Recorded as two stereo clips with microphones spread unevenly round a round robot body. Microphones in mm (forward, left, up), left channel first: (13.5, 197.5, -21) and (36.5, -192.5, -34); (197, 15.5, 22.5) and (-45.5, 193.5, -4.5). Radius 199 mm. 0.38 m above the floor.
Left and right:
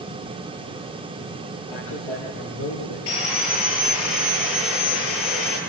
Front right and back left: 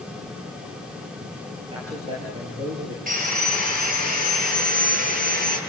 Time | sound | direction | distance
1.7 | a man speaking | 70° left | 8 m
3.1 | sawing | 80° left | 9.5 m